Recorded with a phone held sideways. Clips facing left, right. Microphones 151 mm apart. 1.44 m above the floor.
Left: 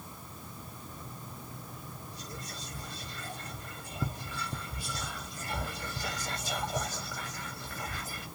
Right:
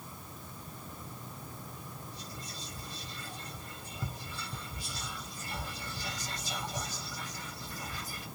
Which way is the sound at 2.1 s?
80° left.